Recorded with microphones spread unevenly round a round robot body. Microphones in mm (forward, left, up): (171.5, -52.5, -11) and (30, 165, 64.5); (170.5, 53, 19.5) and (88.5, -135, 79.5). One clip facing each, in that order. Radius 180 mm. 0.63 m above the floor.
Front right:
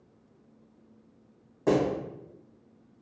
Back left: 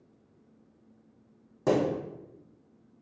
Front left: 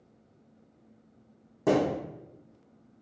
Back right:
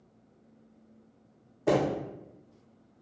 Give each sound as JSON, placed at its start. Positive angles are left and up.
{"t": 1.7, "sound": "a thud", "azimuth_deg": 90, "distance_m": 1.6}